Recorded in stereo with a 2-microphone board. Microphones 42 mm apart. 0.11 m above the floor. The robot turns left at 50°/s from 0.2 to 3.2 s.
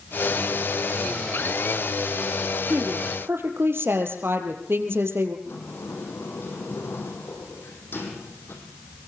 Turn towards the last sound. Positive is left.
turn(degrees=60)  # may be behind; listen again after turning